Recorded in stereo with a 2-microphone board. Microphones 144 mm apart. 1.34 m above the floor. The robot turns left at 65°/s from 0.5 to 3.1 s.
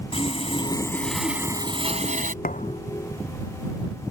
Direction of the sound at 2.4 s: 70° left (ahead or behind).